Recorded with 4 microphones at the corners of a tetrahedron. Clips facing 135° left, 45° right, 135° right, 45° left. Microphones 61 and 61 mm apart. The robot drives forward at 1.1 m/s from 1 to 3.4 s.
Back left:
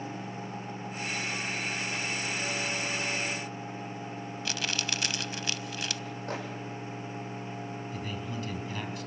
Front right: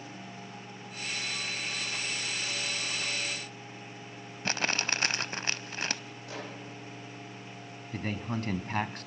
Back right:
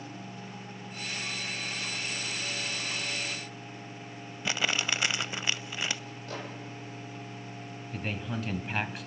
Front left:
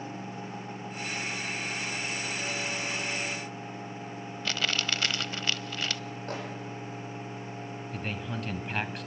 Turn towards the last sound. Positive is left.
turn(degrees=-50)